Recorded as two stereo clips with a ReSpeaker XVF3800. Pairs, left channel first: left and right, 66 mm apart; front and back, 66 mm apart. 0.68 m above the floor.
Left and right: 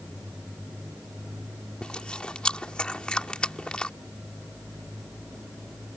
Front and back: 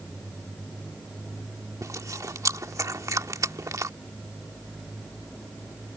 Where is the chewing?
165° left.